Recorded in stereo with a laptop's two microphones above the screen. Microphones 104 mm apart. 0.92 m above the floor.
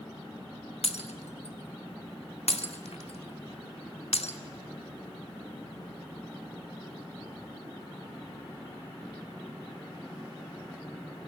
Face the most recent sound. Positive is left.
turn(degrees=85)